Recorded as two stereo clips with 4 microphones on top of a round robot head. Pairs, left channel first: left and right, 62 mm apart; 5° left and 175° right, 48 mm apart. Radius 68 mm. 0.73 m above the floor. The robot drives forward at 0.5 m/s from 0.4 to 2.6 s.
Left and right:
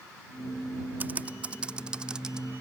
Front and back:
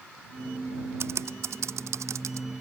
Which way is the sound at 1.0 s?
150° right.